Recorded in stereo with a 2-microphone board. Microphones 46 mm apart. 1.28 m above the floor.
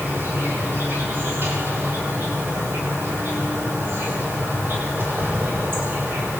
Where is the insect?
55° right (ahead or behind), 6.5 m.